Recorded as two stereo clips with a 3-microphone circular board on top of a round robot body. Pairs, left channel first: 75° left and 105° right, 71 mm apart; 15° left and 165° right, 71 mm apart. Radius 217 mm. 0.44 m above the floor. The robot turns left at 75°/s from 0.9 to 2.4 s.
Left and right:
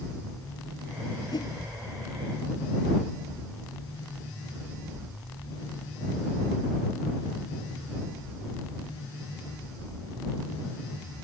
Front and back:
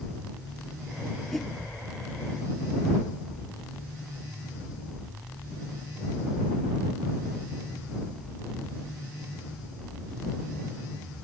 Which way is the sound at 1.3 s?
105° left.